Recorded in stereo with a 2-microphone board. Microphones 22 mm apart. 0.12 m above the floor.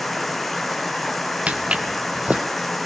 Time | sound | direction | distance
0.0 | running water | centre (ahead or behind) | 1.3 m
1.5 | footsteps | 85° right | 1.0 m